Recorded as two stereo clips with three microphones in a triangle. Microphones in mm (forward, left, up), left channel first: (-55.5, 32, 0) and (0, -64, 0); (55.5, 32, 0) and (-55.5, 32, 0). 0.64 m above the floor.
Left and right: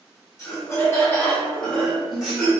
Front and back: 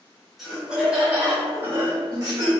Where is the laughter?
90° left, 1.3 m; by 2.5 s 140° right, 1.5 m.